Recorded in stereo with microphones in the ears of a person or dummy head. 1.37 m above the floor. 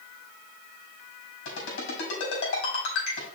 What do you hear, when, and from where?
1.4 s a ringtone: 80° left, 4 m